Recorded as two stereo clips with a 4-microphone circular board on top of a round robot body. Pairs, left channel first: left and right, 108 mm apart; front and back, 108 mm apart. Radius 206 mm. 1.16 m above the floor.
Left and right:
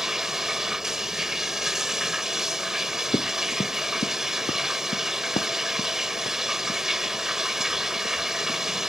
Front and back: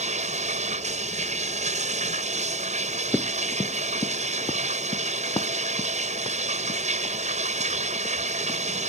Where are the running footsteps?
85° left; by 8.6 s 60° left.